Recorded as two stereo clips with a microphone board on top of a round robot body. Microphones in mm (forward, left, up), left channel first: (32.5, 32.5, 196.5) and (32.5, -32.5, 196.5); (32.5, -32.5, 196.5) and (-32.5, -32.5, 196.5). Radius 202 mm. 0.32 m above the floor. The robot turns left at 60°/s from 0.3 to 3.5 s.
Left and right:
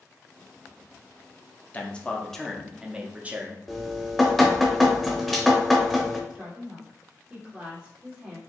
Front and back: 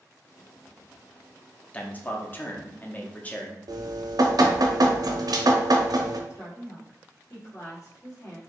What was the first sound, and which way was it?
A man speaking, 45° left.